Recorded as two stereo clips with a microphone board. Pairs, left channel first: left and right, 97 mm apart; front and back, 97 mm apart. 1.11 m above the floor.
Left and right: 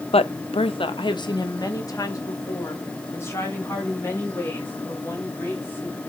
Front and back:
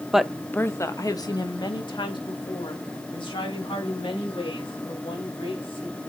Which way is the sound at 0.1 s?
95° left.